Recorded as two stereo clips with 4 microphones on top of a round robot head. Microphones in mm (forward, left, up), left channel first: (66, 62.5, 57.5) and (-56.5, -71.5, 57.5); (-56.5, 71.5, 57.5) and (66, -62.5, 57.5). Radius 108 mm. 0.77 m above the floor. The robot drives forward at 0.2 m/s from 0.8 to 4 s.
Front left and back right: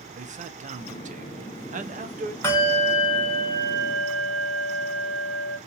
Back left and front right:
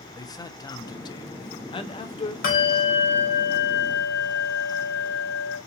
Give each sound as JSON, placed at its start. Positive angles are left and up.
{"t": 0.2, "sound": "a man speaking", "azimuth_deg": -165, "distance_m": 0.6}
{"t": 2.4, "sound": "a bell", "azimuth_deg": 120, "distance_m": 1.7}